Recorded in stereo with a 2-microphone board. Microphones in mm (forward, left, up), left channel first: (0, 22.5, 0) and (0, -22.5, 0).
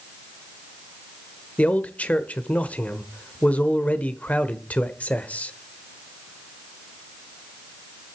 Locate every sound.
1.6 s a man speaking: 30° left (ahead or behind), 1.2 m